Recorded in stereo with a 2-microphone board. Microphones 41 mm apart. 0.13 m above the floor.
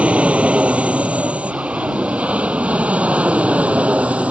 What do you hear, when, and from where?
0.0 s an aircraft: 35° right (ahead or behind)